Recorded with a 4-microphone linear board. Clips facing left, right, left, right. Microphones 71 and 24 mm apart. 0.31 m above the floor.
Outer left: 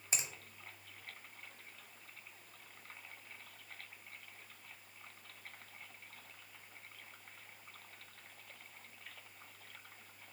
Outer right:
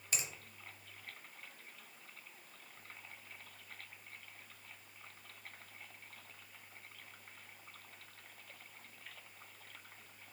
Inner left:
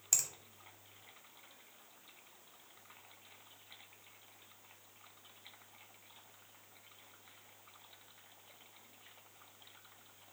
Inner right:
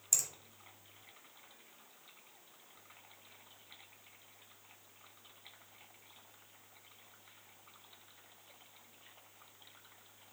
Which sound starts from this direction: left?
A finger snap, at 0.1 s.